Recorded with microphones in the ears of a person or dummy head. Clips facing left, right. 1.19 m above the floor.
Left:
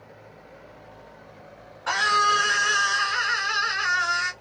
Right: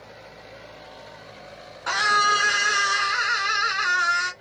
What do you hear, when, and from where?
1.9 s a scream: 45° right (ahead or behind), 2.0 m